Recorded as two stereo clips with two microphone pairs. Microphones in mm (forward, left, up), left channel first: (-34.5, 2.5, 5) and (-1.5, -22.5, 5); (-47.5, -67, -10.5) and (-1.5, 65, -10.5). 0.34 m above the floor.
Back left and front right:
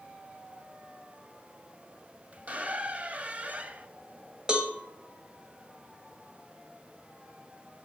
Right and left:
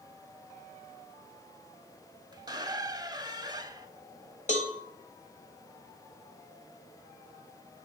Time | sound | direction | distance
2.3 | a squeak | 10° left | 0.6 m
4.5 | a cowbell | 100° right | 1.5 m